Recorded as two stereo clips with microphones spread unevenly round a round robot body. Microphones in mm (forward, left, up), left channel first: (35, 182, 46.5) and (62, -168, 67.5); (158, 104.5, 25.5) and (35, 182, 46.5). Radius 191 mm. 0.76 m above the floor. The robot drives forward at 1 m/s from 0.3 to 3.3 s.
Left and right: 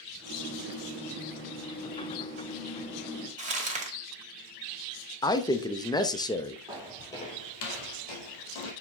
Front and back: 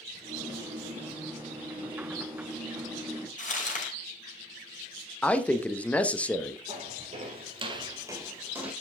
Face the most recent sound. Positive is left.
turn(degrees=70)